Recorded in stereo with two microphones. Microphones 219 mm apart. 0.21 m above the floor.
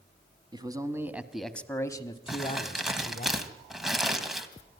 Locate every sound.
0.5 s a man speaking: 20° right (ahead or behind), 1.5 m; by 3.3 s 45° left (ahead or behind), 1.5 m
2.3 s crumpling: centre (ahead or behind), 1.7 m